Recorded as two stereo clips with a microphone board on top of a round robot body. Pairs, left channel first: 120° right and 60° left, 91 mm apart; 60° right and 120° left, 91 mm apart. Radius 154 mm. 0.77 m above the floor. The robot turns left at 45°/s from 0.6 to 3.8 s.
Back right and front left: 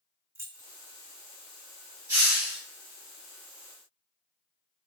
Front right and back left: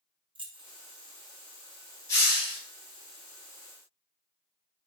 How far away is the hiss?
About 0.6 m.